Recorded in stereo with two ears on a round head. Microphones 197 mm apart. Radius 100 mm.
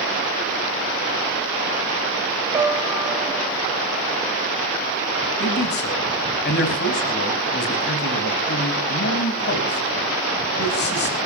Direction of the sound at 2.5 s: 15° right (ahead or behind).